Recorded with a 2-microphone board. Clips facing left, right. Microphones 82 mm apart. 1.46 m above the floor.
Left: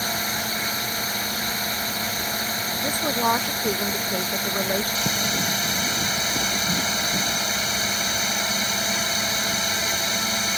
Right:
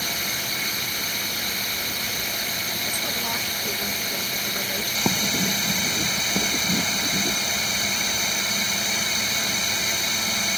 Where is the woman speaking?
45° left (ahead or behind).